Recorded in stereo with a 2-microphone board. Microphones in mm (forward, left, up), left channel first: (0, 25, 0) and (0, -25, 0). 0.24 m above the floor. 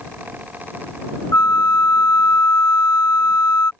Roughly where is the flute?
Left.